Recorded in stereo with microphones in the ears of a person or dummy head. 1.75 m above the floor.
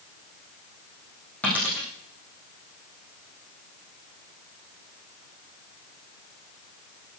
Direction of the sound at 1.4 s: 5° left (ahead or behind).